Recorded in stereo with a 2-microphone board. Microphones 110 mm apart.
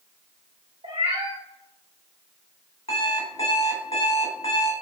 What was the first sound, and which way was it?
A cat meowing, 65° right (ahead or behind).